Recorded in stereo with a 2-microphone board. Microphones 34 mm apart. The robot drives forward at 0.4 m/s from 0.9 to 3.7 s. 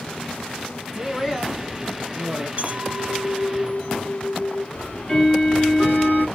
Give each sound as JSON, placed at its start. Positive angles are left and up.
{"t": 0.9, "sound": "a man speaking", "side_deg": 15, "distance_m": 1.5}
{"t": 2.6, "sound": "a clink", "side_deg": -50, "distance_m": 0.9}
{"t": 4.8, "sound": "ticking", "side_deg": 35, "distance_m": 3.5}